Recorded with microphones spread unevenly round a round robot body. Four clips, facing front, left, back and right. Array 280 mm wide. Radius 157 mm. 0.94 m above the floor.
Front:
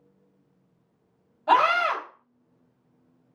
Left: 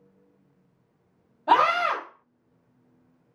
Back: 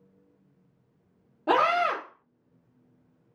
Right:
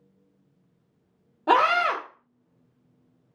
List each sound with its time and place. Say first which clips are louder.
1.5 s a scream: even, front 3 dB; 145° right, 1.0 m